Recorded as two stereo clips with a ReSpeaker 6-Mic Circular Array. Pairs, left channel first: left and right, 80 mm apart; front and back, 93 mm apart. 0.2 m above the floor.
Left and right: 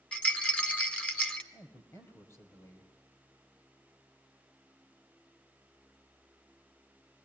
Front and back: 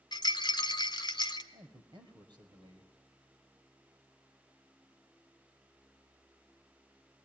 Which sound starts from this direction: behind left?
A man speaking, at 1.5 s.